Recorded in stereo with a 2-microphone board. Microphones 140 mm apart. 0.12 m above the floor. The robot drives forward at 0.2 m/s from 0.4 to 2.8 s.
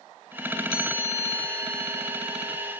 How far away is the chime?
About 1.0 m.